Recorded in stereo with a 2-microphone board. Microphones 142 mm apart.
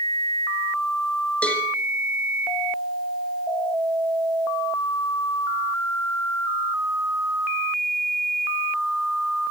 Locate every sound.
1.4 s a cowbell: 10° left (ahead or behind), 2.5 m